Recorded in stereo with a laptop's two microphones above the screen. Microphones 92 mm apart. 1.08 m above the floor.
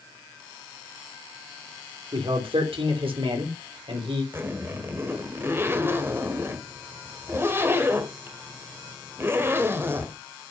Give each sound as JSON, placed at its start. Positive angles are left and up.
{"t": 2.1, "sound": "a man speaking", "side_deg": -75, "distance_m": 3.0}
{"t": 4.3, "sound": "a zipper", "side_deg": -25, "distance_m": 1.2}